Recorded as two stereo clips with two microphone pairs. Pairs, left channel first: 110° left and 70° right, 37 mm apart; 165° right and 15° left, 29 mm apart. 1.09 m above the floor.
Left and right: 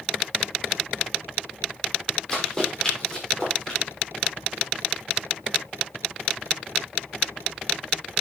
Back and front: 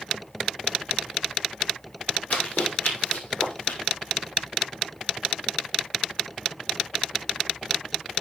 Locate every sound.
2.3 s running footsteps: 170° right, 6.5 m; by 3.8 s straight behind, 7 m